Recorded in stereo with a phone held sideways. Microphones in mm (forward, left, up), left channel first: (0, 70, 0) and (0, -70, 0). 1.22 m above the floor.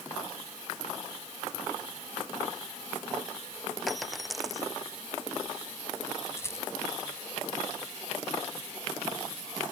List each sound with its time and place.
3.9 s a dropped coin: centre (ahead or behind)
6.4 s a rattle: 20° left (ahead or behind)